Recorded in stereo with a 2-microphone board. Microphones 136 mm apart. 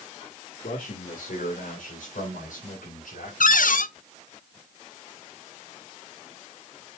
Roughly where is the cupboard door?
Left.